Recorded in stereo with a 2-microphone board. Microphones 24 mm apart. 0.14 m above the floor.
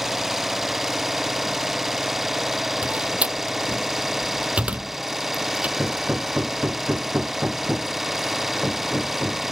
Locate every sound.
0.0 s an engine running: 15° right (ahead or behind)
2.8 s a door slam: 70° right (ahead or behind)
5.8 s hammering: 50° right (ahead or behind)